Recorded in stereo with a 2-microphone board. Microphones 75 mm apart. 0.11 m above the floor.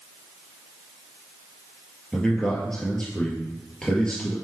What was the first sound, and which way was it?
A man speaking, 10° left (ahead or behind).